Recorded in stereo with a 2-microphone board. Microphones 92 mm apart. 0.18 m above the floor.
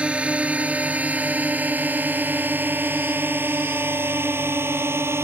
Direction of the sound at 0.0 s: 10° right (ahead or behind).